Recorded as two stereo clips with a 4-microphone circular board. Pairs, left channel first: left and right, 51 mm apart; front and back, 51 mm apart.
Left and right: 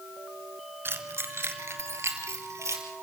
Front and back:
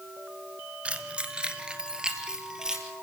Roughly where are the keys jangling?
Behind right.